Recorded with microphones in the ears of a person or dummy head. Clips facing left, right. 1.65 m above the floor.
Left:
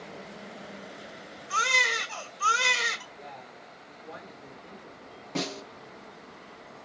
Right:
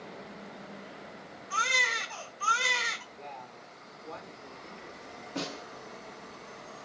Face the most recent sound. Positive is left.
turn(degrees=85)